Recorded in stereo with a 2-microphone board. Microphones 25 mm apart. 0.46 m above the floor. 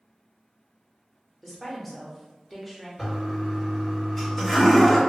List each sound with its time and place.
1.4 s a woman speaking: 5° left (ahead or behind), 0.8 m
3.0 s a toilet flushing: 10° left (ahead or behind), 1.5 m